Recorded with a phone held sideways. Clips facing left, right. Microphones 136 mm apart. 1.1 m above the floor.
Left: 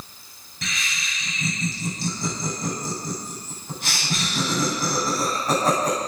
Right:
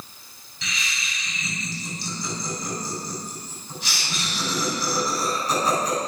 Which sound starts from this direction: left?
Laughter, at 0.6 s.